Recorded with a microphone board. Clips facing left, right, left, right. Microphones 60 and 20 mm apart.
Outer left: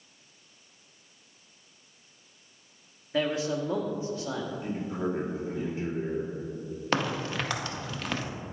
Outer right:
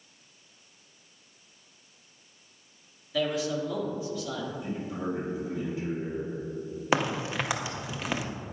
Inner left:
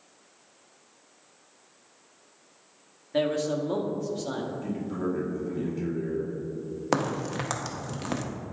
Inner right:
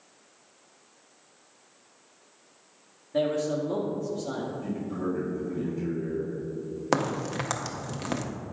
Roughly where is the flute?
I don't hear a flute.